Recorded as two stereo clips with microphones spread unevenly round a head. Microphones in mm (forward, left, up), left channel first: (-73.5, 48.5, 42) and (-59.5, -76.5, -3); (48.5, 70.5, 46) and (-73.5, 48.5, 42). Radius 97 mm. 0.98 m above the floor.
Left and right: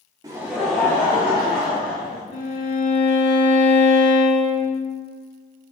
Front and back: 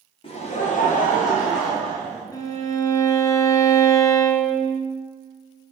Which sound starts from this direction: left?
A violin, at 2.3 s.